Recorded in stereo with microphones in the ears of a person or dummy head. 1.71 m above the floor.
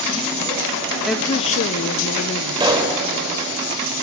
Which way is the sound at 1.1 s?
Centre (ahead or behind).